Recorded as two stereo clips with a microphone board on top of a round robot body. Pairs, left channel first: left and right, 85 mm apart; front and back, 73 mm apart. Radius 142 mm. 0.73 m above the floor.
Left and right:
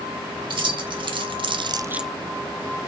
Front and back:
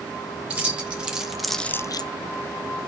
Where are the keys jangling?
105° right, 2 m; by 2.1 s 5° left, 0.5 m.